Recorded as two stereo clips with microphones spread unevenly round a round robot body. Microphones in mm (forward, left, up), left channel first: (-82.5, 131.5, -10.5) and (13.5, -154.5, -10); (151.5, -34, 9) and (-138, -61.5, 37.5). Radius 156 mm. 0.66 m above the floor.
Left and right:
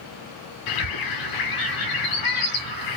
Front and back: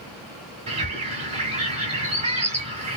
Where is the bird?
115° left, 1.5 m.